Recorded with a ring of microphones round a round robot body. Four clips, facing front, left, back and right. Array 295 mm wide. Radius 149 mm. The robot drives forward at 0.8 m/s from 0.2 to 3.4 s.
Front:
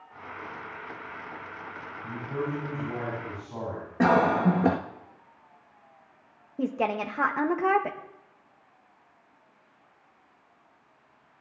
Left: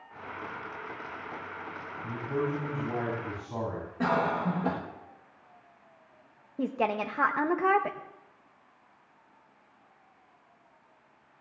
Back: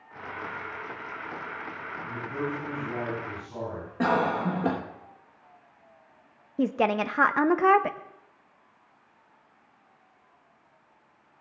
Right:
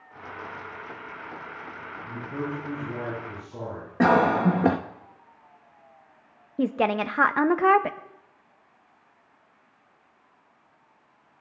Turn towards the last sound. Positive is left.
turn(degrees=-125)